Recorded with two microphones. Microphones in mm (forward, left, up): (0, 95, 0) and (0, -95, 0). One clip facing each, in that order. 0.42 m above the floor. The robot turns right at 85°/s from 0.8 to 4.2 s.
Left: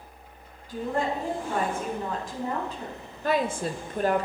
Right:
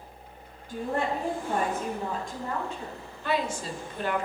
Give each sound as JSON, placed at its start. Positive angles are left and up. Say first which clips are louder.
{"t": 0.7, "sound": "a woman speaking", "louder": "left 1 dB", "azimuth_deg": -125, "distance_m": 4.0}
{"t": 3.2, "sound": "a woman speaking", "louder": "left 3 dB", "azimuth_deg": 50, "distance_m": 1.3}